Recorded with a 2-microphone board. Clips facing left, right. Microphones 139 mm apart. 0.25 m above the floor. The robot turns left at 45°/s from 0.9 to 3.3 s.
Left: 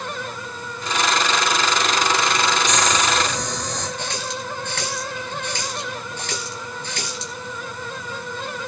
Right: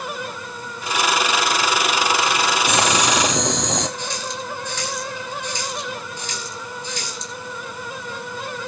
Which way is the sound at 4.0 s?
60° left (ahead or behind).